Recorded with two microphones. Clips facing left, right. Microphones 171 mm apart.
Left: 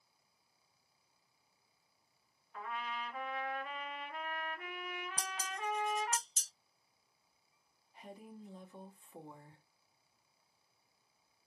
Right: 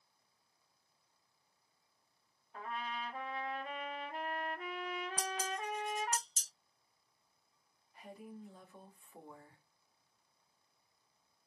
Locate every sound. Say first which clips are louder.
2.5 s a trumpet: even; 35° right (ahead or behind), 0.7 m
5.2 s dishes clattering: right 2 dB; 40° right (ahead or behind), 1.4 m
7.9 s a woman speaking: right 1 dB; 20° left (ahead or behind), 0.9 m